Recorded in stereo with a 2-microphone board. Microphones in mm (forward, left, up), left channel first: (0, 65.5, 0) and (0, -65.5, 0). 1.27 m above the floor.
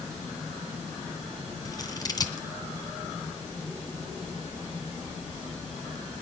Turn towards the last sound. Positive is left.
turn(degrees=30)  # may be behind; listen again after turning